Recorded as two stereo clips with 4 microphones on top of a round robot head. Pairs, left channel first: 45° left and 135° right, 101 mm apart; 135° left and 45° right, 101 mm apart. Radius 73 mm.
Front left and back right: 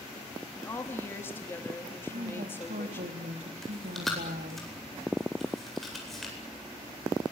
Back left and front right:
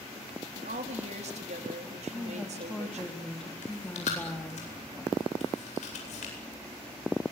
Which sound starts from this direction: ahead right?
A woman speaking, at 0.6 s.